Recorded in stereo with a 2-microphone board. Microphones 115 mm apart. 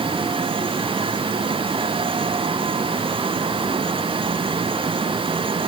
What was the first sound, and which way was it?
Only background noise.